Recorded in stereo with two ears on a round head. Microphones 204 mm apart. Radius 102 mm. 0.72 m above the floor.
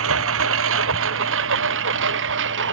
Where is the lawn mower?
60° right (ahead or behind); by 2.7 s 55° right (ahead or behind).